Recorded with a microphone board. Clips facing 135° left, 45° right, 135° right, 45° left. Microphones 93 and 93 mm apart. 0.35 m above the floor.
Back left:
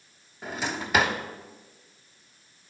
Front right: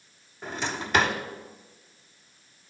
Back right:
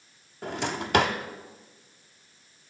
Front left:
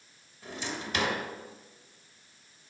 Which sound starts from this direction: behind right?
A drawer, at 0.4 s.